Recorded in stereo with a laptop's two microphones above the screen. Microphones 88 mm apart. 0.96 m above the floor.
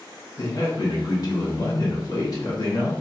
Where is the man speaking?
40° left (ahead or behind), 1.0 m.